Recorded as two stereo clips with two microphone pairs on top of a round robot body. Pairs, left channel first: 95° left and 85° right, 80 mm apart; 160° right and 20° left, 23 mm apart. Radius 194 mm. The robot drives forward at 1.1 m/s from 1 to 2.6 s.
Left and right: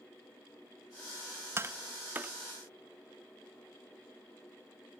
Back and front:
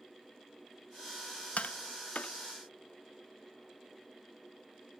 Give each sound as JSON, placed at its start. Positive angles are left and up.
{"t": 1.6, "sound": "tapping", "azimuth_deg": -135}